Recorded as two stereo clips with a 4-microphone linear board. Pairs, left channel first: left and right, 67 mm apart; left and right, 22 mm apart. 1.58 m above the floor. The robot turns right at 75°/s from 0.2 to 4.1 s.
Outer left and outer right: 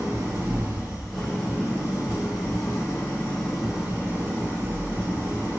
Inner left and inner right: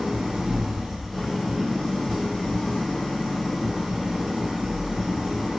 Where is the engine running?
70° right, 1.1 m; by 5.6 s 135° right, 1.1 m.